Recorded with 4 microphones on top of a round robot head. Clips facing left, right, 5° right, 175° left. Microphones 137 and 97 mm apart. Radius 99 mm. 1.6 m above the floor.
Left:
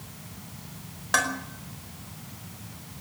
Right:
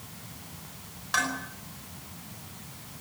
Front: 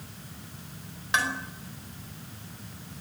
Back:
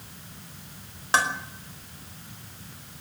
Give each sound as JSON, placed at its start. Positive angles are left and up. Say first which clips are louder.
{"t": 1.1, "sound": "dishes clattering", "louder": "left 3 dB, back 4 dB", "azimuth_deg": 125, "distance_m": 5.0}